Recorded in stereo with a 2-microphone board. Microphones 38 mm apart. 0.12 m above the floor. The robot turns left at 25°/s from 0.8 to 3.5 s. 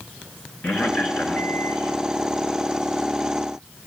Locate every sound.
0.6 s a man speaking: 35° left (ahead or behind), 2.0 m; by 1.9 s 40° left (ahead or behind), 2.0 m